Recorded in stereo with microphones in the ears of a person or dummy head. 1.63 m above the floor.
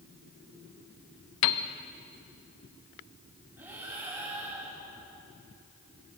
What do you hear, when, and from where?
1.4 s a piano: 70° left (ahead or behind), 1.0 m
3.6 s breathing: 10° right (ahead or behind), 7.5 m